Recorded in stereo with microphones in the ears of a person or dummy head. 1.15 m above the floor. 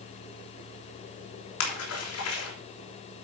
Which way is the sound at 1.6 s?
80° left.